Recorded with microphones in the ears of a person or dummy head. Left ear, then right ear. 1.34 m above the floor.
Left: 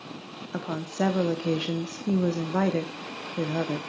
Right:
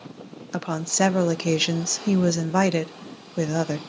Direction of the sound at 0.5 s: 80° right.